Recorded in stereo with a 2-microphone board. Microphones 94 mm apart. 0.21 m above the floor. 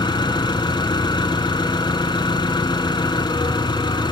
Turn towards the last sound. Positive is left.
turn(degrees=60)  # may be behind; listen again after turning